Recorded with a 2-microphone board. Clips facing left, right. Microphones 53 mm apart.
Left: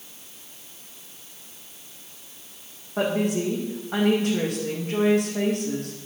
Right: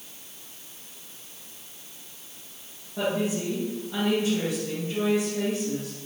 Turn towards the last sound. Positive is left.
turn(degrees=65)  # may be behind; listen again after turning